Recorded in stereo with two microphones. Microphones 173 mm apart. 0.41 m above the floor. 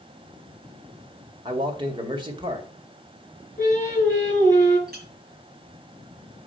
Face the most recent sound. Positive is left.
turn(degrees=-70)  # may be behind; listen again after turning